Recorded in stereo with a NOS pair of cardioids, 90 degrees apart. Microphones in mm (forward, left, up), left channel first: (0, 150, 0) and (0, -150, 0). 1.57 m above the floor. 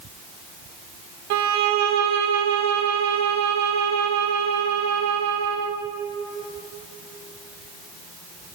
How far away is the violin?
About 0.7 m.